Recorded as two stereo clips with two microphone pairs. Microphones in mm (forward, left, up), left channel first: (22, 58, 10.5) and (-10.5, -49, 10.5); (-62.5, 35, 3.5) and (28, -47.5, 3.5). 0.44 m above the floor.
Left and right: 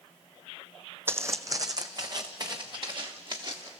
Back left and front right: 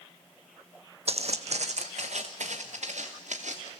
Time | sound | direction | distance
1.1 | footsteps | 40° right | 0.7 m